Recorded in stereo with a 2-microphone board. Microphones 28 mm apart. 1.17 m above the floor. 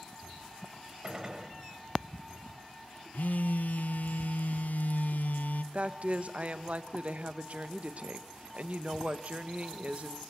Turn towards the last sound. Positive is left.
turn(degrees=-55)  # may be behind; listen again after turning